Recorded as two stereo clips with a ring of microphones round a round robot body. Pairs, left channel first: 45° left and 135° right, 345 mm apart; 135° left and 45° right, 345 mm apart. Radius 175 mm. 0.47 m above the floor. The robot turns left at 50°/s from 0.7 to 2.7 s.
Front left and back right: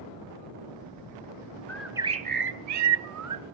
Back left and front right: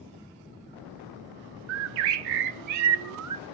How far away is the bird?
About 0.7 m.